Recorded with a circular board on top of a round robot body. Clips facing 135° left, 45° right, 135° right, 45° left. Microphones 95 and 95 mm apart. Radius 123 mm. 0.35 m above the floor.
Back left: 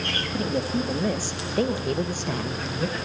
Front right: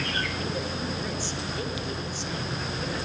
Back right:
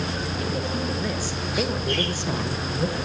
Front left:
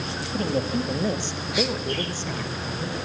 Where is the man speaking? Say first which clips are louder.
Back left 6 dB, front left 6 dB; 85° left, 2.5 m; by 3.0 s straight behind, 1.9 m.